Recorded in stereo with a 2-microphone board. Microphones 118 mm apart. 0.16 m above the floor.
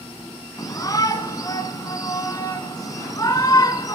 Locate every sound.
0.6 s a shout: 30° left (ahead or behind), 1.5 m